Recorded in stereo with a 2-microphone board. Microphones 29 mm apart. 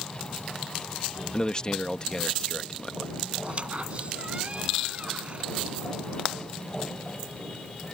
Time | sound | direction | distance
1.3 | a man speaking | 25° left (ahead or behind) | ?
3.4 | a squeak | 45° right (ahead or behind) | ?